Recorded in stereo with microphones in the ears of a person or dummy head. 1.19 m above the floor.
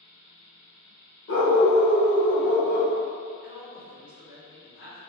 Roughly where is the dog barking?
Left.